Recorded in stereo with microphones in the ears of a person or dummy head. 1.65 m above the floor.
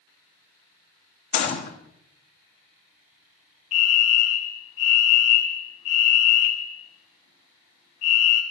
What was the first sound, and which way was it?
A gunshot, 50° left (ahead or behind).